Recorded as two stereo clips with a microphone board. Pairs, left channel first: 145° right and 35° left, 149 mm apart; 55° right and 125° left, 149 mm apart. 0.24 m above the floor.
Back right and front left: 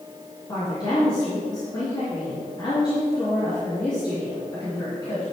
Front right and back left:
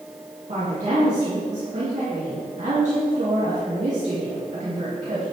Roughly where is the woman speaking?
Behind left.